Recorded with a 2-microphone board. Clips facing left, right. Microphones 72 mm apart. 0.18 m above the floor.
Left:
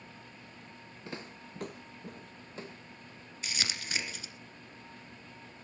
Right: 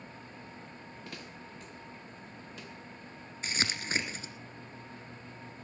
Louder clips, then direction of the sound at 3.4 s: Right 4 dB; 35° right (ahead or behind).